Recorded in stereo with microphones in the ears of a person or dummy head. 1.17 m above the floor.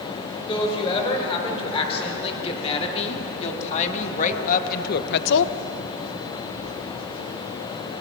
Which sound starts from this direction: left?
A woman speaking, at 0.5 s.